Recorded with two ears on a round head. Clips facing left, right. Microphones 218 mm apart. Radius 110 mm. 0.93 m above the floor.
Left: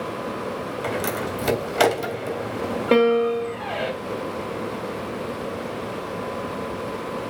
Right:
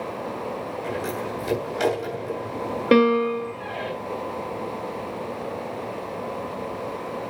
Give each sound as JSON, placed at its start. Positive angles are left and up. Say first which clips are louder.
{"t": 0.8, "sound": "a door slam", "louder": "left 3 dB", "side_deg": 65, "distance_m": 3.0}
{"t": 2.9, "sound": "a piano", "louder": "even", "side_deg": -15, "distance_m": 2.0}